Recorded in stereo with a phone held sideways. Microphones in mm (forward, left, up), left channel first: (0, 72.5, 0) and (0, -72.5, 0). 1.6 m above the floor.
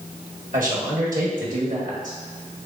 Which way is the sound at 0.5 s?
65° right (ahead or behind).